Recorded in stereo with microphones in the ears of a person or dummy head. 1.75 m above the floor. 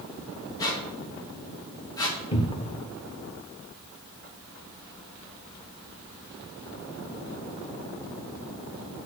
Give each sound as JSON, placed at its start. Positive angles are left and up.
{"t": 0.6, "sound": "a squeak", "side_deg": 15, "distance_m": 2.5}
{"t": 2.3, "sound": "a cupboard door", "side_deg": 35, "distance_m": 1.3}